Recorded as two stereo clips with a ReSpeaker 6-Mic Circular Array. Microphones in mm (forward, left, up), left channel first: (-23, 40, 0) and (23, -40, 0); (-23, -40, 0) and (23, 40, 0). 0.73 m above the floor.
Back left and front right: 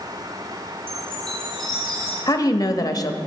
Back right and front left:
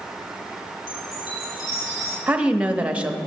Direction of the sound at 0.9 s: 160° right.